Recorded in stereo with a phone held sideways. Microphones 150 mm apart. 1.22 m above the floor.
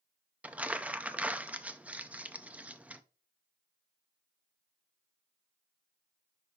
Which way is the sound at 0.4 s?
10° right (ahead or behind).